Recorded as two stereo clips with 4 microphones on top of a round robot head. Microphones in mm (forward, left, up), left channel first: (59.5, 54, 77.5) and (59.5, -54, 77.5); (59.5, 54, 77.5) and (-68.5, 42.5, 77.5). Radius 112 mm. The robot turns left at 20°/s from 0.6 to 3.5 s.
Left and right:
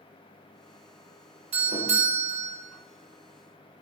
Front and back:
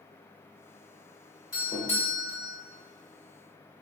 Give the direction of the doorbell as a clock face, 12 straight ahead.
2 o'clock.